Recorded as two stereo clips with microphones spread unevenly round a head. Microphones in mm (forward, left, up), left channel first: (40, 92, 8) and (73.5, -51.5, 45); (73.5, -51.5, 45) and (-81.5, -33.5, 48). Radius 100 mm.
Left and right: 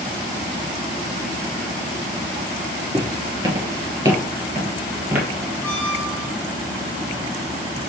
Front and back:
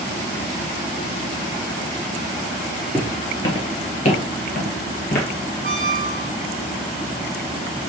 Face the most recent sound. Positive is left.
turn(degrees=0)